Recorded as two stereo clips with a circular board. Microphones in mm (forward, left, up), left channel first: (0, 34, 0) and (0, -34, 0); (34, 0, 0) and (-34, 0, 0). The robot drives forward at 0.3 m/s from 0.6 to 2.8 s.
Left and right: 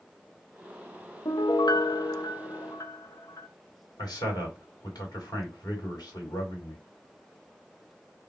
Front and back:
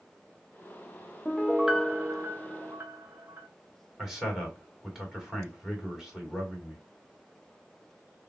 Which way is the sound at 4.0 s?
95° left.